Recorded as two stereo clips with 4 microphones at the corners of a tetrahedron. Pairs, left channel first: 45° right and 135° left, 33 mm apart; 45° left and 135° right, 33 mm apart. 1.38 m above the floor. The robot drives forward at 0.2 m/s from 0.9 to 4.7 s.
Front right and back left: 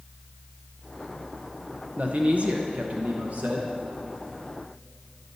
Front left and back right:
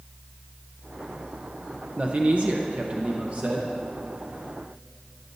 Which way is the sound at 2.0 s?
Straight behind.